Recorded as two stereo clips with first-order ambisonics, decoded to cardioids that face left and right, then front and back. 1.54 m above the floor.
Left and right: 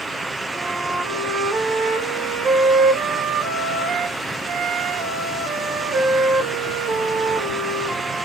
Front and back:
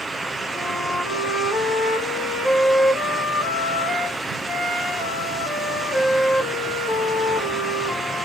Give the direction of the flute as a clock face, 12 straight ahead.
2 o'clock.